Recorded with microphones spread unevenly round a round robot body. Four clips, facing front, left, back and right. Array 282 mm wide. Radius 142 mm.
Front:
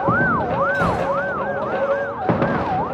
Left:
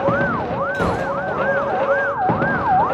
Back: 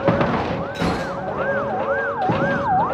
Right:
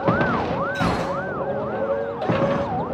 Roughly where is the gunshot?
Left.